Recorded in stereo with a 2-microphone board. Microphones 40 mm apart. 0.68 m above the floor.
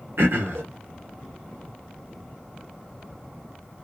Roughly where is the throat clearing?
Right.